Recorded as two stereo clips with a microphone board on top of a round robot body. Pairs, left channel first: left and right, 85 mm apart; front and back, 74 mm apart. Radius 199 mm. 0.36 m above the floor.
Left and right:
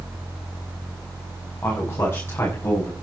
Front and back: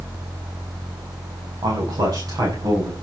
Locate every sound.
1.6 s a man speaking: 155° left, 6 m; by 2.9 s 150° left, 7 m